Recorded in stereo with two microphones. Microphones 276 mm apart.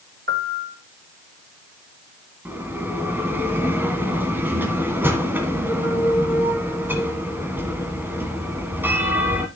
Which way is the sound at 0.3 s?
45° right (ahead or behind).